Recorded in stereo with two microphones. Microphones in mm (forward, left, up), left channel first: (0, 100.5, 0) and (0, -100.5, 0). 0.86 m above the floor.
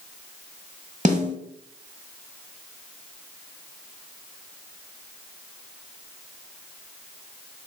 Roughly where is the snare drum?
Right.